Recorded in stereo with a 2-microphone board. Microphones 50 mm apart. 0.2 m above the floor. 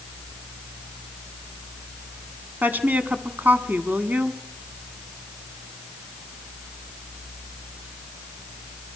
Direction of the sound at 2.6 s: 40° right (ahead or behind).